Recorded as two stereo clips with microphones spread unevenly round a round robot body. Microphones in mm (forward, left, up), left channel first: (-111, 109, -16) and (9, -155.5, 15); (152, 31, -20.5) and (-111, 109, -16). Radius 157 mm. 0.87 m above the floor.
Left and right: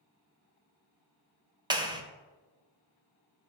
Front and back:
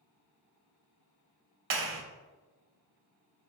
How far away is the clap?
About 0.8 m.